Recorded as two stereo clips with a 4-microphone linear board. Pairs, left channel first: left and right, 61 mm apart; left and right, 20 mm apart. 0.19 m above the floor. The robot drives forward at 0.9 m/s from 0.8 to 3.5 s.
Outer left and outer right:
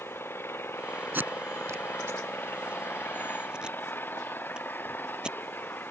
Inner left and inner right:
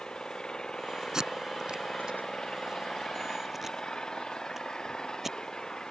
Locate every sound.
0.0 s an engine running: 40° left (ahead or behind); by 5.9 s 35° left (ahead or behind)
1.1 s tape being pulled: 35° right (ahead or behind); by 5.4 s 15° right (ahead or behind)